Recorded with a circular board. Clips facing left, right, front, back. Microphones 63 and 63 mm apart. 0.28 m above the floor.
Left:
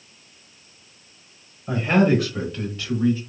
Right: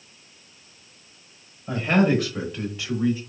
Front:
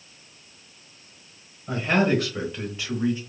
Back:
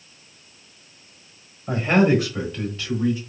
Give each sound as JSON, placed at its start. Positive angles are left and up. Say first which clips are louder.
{"t": 1.7, "sound": "a man speaking", "louder": "left 2 dB, back 4 dB", "azimuth_deg": 160, "distance_m": 1.3}